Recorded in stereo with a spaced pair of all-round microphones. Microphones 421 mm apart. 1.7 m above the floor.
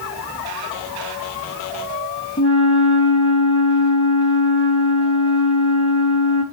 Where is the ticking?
No ticking in this recording.